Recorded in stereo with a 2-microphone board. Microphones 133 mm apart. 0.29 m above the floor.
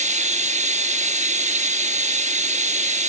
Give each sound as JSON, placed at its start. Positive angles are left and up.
{"t": 0.0, "sound": "running water", "side_deg": -65, "distance_m": 1.3}